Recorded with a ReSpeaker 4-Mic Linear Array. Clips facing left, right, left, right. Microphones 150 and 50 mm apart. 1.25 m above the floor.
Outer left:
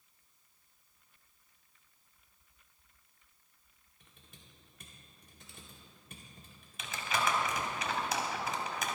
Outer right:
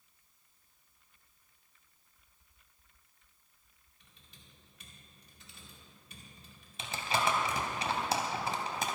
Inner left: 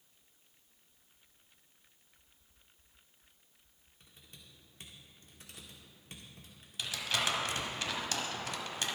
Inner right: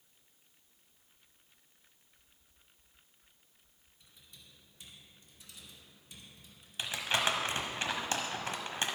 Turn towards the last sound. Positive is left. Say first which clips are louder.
# outer right 2 dB, inner right 2 dB
turn(degrees=-30)  # may be behind; listen again after turning